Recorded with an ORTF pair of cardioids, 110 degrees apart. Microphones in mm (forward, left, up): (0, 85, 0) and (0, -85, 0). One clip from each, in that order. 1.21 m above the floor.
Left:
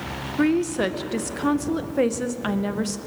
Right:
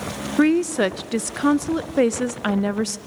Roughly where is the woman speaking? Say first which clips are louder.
Right 3 dB; ahead right.